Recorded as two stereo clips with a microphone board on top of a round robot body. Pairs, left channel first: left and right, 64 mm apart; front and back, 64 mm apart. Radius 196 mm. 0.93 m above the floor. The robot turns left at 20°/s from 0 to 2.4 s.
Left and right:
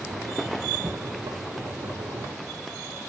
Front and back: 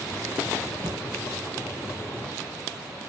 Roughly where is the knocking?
Behind right.